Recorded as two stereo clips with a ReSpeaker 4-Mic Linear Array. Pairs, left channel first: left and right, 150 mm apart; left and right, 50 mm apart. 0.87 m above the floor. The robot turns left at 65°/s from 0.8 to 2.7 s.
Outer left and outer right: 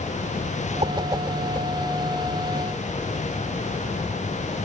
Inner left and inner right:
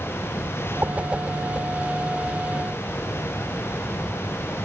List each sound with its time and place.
0.8 s a whoosh: 40° right (ahead or behind); by 1.7 s 15° left (ahead or behind)